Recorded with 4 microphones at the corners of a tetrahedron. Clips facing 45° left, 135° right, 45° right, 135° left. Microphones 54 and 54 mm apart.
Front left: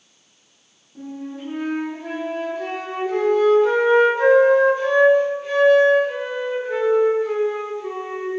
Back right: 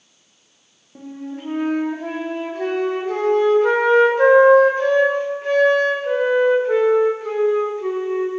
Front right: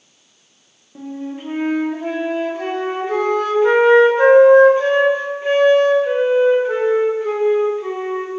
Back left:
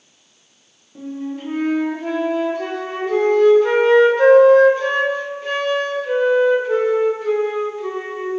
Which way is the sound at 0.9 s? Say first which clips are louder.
Even, back left 1 dB; 110° right.